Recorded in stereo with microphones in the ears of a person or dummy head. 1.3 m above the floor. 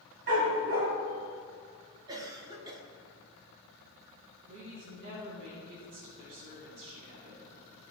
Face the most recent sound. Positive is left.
turn(degrees=-70)  # may be behind; listen again after turning